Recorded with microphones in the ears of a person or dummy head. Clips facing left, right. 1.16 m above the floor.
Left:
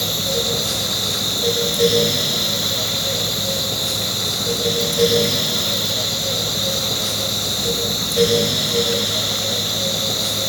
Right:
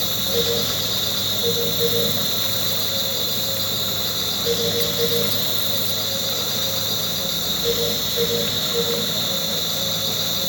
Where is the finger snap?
No finger snap in this recording.